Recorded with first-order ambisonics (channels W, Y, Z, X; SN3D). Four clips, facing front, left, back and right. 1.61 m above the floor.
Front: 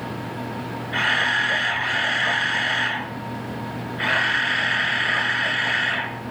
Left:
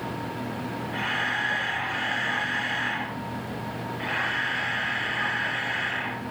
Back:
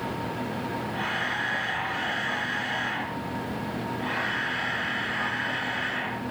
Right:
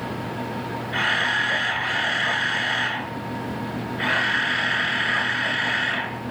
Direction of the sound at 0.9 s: 35° right.